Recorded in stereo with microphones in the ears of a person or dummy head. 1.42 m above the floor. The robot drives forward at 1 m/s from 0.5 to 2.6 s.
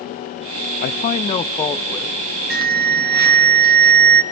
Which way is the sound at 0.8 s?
45° left (ahead or behind).